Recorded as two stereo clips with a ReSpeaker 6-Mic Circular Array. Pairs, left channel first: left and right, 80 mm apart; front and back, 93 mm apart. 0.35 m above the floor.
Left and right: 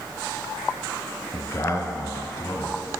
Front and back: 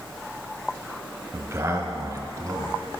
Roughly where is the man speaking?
Behind left.